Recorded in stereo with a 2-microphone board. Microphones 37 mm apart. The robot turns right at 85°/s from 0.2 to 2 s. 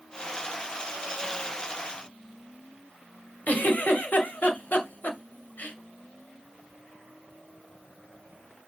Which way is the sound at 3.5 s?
50° left (ahead or behind).